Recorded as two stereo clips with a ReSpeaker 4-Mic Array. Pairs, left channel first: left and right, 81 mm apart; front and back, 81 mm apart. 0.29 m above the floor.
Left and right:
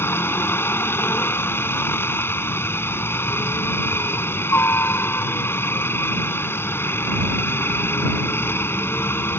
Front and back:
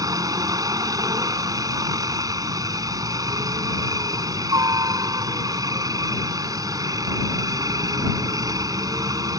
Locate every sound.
0.0 s a helicopter: 145° left